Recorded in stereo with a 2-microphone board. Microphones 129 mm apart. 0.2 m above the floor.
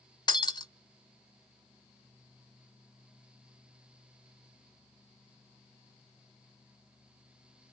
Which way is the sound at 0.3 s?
35° left (ahead or behind).